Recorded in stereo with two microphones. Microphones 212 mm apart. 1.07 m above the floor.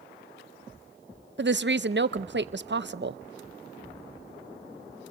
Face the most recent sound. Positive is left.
turn(degrees=-60)  # may be behind; listen again after turning